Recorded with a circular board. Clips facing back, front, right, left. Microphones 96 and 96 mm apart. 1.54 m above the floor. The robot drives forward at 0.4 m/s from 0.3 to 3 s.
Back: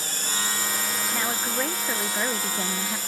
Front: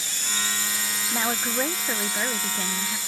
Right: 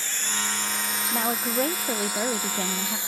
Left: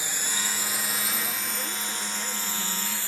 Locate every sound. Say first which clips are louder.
0.0 s a drone: back 2 dB, right 1 dB; 160° left; by 3.1 s 160° right
1.1 s a woman speaking: front 4 dB, right 8 dB; 70° right; by 3.0 s 115° right